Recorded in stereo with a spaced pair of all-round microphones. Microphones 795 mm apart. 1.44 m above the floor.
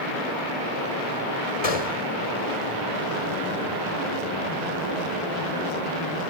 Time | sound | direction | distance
1.6 | a gunshot | 50° left (ahead or behind) | ?